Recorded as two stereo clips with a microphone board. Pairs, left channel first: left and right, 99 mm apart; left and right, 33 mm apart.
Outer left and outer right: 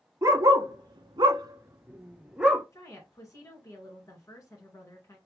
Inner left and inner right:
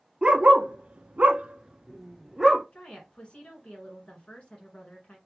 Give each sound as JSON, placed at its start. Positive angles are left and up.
{"t": 0.2, "sound": "a dog barking", "side_deg": -35, "distance_m": 1.0}
{"t": 2.7, "sound": "a woman speaking", "side_deg": 35, "distance_m": 1.8}